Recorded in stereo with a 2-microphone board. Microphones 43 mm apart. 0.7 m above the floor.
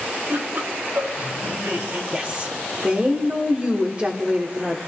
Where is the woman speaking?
35° right (ahead or behind), 1.8 m.